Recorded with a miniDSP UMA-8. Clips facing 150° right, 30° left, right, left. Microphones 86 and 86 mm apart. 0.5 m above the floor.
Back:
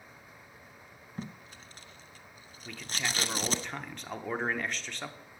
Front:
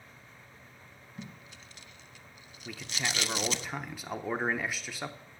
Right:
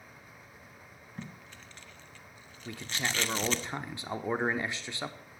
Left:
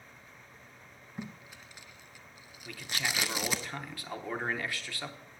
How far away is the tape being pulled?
About 0.6 m.